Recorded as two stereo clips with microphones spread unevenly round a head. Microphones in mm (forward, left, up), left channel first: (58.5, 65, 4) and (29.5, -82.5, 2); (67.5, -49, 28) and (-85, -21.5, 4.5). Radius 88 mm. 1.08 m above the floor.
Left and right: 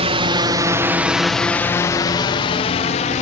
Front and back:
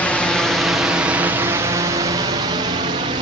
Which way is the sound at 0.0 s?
100° right.